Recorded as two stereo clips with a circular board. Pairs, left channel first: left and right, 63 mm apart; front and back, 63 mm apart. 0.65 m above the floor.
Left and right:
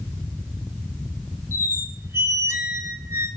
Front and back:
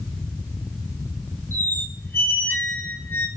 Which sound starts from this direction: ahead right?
A squeak, at 1.5 s.